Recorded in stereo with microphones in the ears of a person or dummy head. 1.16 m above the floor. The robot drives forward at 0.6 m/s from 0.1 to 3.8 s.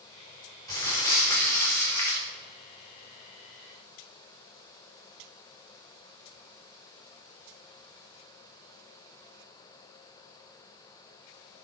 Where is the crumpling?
15° left (ahead or behind), 3.5 m.